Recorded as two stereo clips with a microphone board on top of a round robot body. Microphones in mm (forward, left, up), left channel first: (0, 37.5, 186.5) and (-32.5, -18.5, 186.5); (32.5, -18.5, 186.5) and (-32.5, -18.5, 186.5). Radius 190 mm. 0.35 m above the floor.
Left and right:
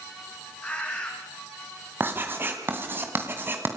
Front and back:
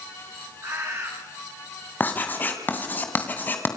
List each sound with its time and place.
0.6 s a bird: 130° left, 5 m
2.0 s writing: 60° right, 2.5 m